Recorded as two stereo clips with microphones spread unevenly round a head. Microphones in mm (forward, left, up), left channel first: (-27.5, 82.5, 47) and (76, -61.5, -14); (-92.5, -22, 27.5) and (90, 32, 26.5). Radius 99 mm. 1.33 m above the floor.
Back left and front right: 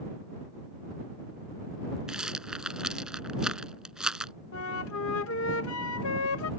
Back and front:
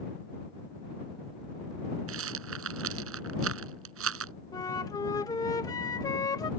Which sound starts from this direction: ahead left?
A rattle, at 2.1 s.